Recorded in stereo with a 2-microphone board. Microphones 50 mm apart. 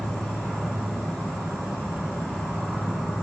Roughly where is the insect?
Centre.